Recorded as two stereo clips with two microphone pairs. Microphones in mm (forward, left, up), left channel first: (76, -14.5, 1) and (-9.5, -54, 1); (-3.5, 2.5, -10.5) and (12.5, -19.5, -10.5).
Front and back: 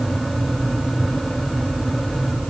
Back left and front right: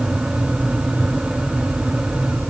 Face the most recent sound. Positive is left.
No sound to turn to.